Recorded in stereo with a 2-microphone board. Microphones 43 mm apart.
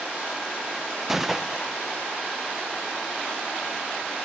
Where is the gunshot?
5° right (ahead or behind), 0.5 m.